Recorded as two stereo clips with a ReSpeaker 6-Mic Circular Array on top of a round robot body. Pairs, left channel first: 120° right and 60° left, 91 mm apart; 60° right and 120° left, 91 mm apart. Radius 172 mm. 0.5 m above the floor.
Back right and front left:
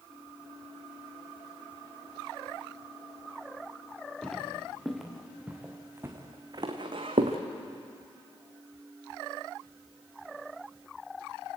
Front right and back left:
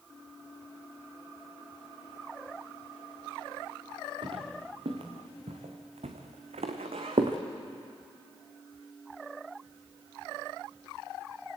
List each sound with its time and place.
4.2 s footsteps: 155° left, 4 m; by 7.4 s 80° left, 2 m